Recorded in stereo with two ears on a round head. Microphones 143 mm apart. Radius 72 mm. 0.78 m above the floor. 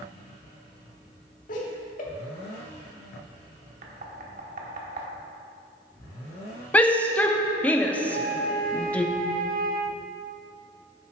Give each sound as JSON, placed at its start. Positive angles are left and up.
{"t": 1.5, "sound": "laughter", "side_deg": 50, "distance_m": 2.0}
{"t": 3.8, "sound": "knocking", "side_deg": -50, "distance_m": 1.3}
{"t": 6.7, "sound": "a shout", "side_deg": 10, "distance_m": 0.8}
{"t": 8.1, "sound": "a flute", "side_deg": -60, "distance_m": 0.7}